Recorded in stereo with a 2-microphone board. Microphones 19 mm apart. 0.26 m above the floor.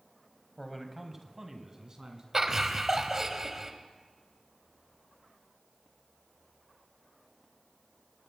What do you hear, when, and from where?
0.6 s a man speaking: 10° left (ahead or behind), 1.5 m; by 2.2 s 40° right (ahead or behind), 3 m
2.3 s laughter: 25° right (ahead or behind), 1.1 m